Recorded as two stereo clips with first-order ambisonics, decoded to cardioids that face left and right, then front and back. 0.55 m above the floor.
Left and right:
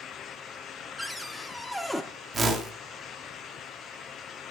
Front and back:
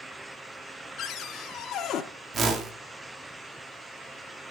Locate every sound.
1.0 s a cupboard door: straight ahead, 0.6 m
2.3 s a whoosh: 140° right, 1.1 m